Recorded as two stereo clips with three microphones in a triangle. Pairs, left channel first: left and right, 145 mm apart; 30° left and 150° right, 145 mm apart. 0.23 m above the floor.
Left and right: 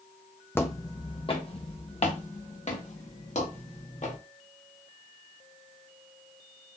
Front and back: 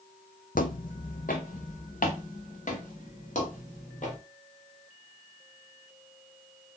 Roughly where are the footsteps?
Ahead.